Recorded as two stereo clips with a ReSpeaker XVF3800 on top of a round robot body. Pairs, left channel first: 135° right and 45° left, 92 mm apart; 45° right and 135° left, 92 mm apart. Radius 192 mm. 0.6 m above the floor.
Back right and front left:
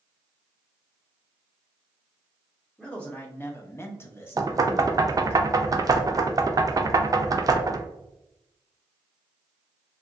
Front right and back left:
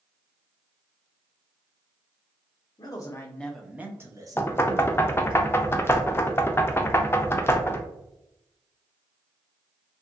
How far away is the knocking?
About 0.5 m.